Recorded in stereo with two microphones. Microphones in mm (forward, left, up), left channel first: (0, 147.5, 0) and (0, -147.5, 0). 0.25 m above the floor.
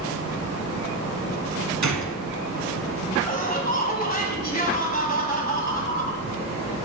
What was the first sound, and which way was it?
A gunshot, 60° right (ahead or behind).